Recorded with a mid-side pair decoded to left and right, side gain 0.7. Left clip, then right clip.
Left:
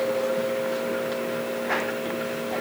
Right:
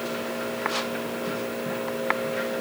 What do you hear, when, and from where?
Only background noise.